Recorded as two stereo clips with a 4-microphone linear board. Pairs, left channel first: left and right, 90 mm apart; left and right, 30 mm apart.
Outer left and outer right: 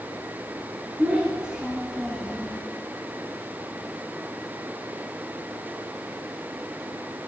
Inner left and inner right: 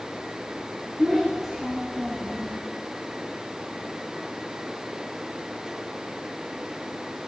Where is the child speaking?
15° right (ahead or behind), 2.0 m; by 2.6 s 20° left (ahead or behind), 1.2 m.